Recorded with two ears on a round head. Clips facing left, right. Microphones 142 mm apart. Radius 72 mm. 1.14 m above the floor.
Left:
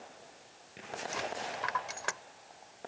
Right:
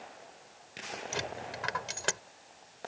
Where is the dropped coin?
35° right (ahead or behind).